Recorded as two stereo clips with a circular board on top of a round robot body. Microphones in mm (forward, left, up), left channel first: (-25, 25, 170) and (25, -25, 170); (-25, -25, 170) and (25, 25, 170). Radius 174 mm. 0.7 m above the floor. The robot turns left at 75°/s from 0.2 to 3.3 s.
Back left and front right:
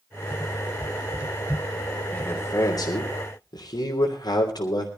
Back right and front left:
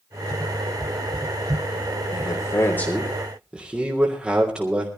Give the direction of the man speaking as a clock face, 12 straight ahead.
5 o'clock.